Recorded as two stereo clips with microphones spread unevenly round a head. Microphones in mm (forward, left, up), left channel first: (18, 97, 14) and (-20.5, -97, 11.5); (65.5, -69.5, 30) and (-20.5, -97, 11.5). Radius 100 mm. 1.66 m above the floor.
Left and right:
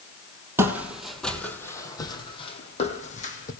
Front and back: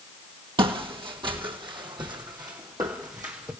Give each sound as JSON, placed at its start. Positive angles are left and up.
{"t": 0.6, "sound": "footsteps", "azimuth_deg": -175, "distance_m": 2.0}